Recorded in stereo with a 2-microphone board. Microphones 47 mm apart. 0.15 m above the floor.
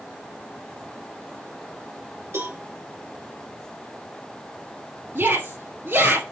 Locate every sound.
2.3 s a cowbell: 65° right (ahead or behind), 3 m
5.2 s a shout: 45° right (ahead or behind), 2.5 m